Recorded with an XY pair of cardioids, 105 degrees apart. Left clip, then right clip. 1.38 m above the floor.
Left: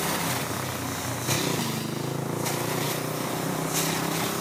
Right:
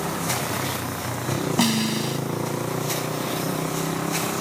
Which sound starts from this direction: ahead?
A motorcycle, at 0.0 s.